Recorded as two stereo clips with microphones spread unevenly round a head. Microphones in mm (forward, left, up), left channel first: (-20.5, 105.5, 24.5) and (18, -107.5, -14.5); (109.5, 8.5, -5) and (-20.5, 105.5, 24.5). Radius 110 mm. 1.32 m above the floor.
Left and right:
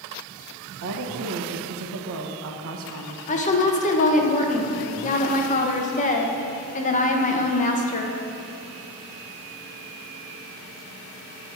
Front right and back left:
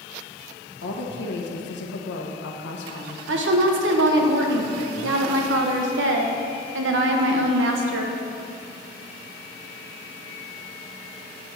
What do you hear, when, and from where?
0.8 s a woman speaking: 55° right, 1.1 m
3.3 s a woman speaking: 160° left, 1.0 m